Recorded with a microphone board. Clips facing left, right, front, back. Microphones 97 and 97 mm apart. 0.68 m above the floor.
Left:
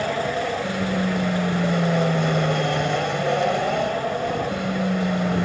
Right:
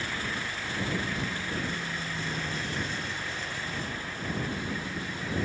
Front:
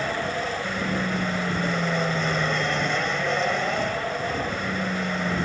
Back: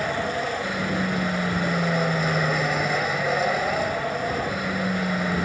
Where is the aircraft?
95° left.